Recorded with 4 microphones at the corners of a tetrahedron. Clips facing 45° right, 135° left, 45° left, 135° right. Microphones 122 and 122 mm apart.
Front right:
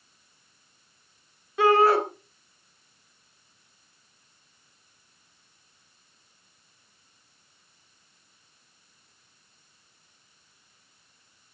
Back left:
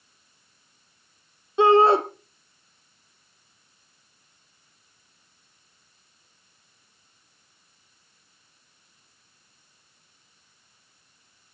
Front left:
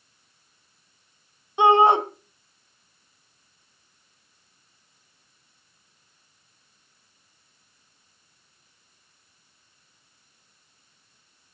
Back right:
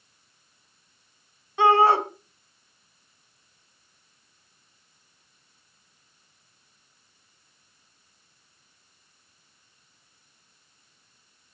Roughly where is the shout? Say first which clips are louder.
Back left 3 dB, front left 2 dB; left.